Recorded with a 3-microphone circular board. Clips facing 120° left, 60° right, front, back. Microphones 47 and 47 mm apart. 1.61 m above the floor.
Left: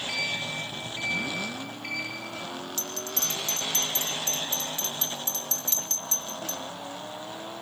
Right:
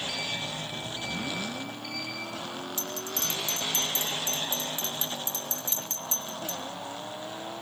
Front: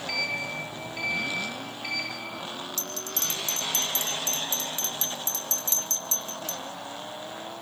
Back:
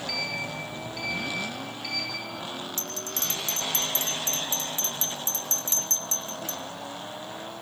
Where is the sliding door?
65° left, 9 m.